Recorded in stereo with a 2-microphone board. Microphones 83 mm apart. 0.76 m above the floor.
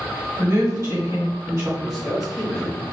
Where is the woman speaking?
45° right (ahead or behind), 1.5 m.